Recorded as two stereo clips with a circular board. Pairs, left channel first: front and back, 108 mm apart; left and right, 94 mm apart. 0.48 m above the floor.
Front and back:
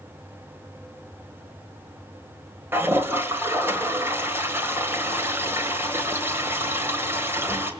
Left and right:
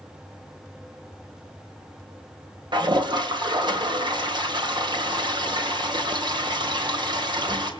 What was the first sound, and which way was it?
A toilet flushing, 115° right.